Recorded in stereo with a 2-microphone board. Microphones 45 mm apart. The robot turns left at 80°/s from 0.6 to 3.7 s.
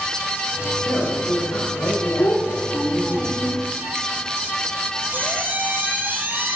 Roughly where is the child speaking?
Left.